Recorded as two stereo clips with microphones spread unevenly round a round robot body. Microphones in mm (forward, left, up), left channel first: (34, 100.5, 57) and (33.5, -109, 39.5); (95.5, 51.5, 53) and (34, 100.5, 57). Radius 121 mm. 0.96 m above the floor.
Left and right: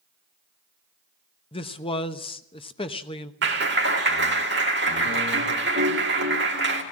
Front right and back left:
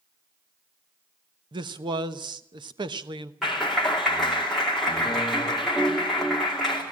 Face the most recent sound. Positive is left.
turn(degrees=-125)